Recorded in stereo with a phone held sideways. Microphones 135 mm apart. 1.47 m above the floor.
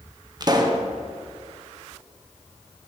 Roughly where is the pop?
Right.